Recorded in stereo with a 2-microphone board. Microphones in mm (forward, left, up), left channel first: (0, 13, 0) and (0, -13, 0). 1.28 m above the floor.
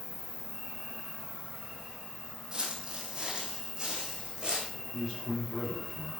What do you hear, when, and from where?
0.0 s an insect: 5° left (ahead or behind), 3 m
2.5 s footsteps: 25° right (ahead or behind), 2.5 m; by 4.7 s 30° right (ahead or behind), 4 m
4.9 s a man speaking: 25° left (ahead or behind), 3 m